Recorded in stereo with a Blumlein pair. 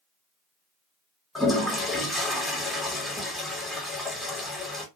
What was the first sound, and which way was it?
A toilet flushing, straight ahead.